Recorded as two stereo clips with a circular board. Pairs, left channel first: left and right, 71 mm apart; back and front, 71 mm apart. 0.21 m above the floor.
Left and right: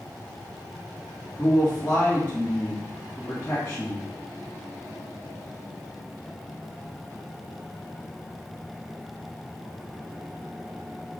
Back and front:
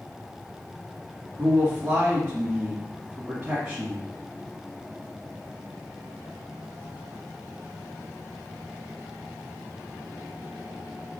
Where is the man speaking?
40° left, 1.6 m.